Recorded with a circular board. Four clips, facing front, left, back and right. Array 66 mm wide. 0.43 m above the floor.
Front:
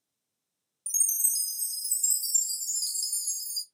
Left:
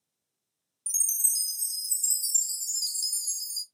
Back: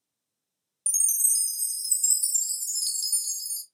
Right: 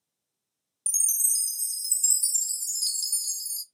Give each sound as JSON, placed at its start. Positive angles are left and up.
{"t": 0.9, "sound": "a chime", "azimuth_deg": -130, "distance_m": 0.7}